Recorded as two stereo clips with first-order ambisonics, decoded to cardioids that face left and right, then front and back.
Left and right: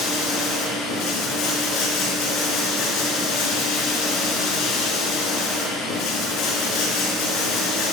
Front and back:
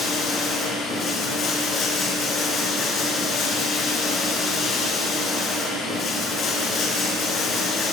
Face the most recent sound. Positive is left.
turn(degrees=60)